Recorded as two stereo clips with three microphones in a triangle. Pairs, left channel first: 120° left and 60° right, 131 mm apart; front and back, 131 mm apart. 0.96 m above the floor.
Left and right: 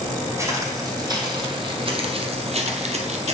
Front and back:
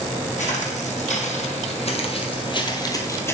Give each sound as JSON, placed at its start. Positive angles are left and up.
{"t": 0.4, "sound": "footsteps", "azimuth_deg": 5, "distance_m": 2.5}